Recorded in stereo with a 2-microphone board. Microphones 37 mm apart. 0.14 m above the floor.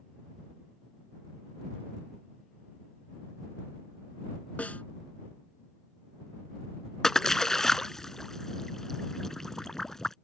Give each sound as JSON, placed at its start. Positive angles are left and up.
{"t": 4.6, "sound": "a snare drum", "side_deg": 40}
{"t": 7.0, "sound": "a splash", "side_deg": 10}